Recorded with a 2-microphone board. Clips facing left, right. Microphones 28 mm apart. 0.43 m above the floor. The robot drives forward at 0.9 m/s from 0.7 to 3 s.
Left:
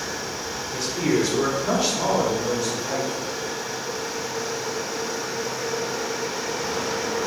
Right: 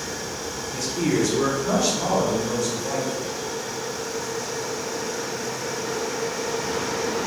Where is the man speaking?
20° left (ahead or behind), 1.5 m.